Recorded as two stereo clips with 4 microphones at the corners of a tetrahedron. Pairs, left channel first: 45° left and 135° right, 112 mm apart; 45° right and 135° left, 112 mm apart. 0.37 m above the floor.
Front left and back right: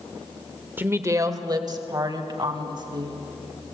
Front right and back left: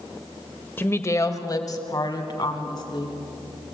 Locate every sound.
0.8 s a woman speaking: 85° right, 1.2 m; by 3.1 s 90° right, 4 m